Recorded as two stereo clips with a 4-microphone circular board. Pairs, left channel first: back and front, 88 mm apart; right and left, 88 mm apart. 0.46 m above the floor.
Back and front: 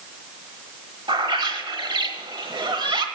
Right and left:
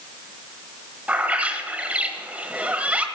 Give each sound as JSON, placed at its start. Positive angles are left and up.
{"t": 1.1, "sound": "a bird", "azimuth_deg": 15, "distance_m": 1.2}